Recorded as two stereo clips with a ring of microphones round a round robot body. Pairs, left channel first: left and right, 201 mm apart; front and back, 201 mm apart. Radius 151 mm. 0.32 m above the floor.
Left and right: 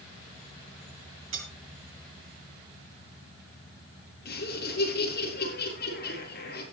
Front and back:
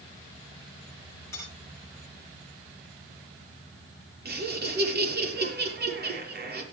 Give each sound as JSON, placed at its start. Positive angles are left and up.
{"t": 1.3, "sound": "cutlery clinking", "azimuth_deg": -80, "distance_m": 6.5}
{"t": 4.2, "sound": "laughter", "azimuth_deg": 145, "distance_m": 7.5}